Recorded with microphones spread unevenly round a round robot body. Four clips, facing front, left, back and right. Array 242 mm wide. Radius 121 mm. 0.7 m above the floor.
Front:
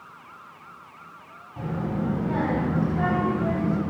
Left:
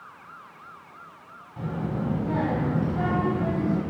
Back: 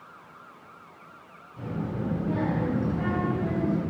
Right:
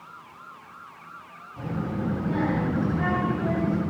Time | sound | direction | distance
1.6 | a child speaking | 30° left | 3 m